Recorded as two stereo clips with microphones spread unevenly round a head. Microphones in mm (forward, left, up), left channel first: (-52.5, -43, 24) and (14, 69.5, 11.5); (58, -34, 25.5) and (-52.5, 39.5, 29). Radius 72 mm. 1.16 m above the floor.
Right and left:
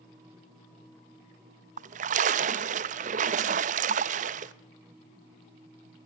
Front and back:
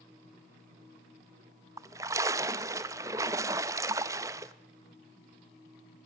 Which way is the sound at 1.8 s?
85° left.